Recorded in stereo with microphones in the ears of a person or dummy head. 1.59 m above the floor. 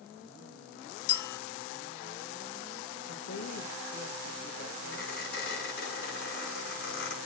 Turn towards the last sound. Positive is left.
turn(degrees=70)  # may be behind; listen again after turning